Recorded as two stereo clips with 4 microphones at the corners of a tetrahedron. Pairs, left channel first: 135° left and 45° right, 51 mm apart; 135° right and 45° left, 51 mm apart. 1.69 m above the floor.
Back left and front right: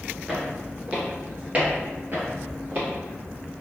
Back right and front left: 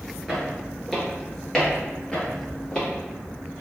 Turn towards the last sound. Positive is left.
turn(degrees=-70)